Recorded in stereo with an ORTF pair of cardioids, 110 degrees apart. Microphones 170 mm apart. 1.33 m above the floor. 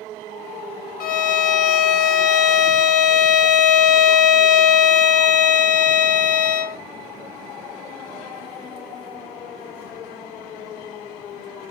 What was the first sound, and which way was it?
A violin, 60° left.